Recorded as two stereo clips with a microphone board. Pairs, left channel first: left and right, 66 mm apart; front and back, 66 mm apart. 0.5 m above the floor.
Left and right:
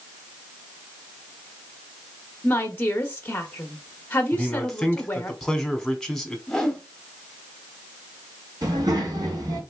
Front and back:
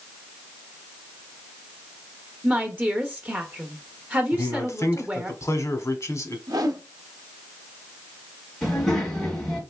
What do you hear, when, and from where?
2.4 s a woman speaking: 130° left, 0.7 m
4.3 s a man speaking: 5° left, 1.1 m
6.5 s a whoosh: 170° left, 0.9 m
8.6 s a child speaking: 85° right, 2.5 m